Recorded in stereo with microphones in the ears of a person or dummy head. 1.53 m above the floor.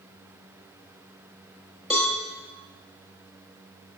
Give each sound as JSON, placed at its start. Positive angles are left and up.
{"t": 1.9, "sound": "a cowbell", "side_deg": 0, "distance_m": 1.0}